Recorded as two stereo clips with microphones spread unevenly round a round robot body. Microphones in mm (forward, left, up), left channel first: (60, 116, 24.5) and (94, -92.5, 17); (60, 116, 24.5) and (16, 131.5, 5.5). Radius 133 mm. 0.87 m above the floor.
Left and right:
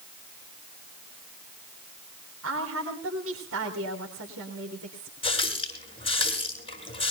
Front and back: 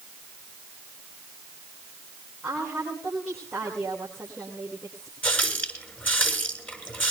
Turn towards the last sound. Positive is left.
turn(degrees=35)